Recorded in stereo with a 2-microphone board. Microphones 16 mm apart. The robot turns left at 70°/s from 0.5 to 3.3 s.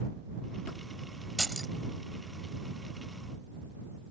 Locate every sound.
1.4 s keys jangling: 25° left (ahead or behind)